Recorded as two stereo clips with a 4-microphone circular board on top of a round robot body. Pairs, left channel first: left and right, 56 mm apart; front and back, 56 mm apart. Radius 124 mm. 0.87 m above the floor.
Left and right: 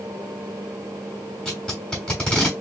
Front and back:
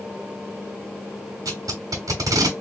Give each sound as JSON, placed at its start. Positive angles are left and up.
{"t": 1.4, "sound": "tape being pulled", "azimuth_deg": 170, "distance_m": 1.2}